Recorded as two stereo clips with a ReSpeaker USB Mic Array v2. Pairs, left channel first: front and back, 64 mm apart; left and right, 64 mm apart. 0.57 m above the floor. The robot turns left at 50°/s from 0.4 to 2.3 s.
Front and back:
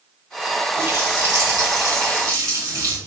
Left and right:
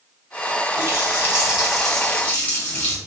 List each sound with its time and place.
0.8 s a running tap: 130° right, 1.9 m; by 3.0 s 155° left, 1.9 m